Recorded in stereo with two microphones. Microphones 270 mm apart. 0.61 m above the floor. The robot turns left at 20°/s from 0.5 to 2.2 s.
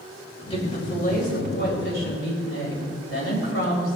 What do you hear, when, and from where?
0.5 s a woman speaking: 155° left, 3 m; by 4.0 s 120° left, 3 m